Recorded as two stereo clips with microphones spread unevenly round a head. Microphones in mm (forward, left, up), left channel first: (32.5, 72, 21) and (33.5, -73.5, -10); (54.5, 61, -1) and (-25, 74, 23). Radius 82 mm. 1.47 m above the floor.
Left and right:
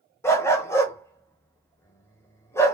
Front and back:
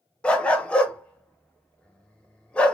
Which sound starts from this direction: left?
A dog barking, at 0.2 s.